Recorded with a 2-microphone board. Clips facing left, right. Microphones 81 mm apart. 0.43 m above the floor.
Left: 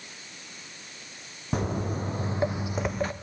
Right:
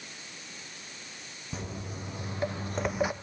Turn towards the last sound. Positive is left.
turn(degrees=-15)  # may be behind; listen again after turning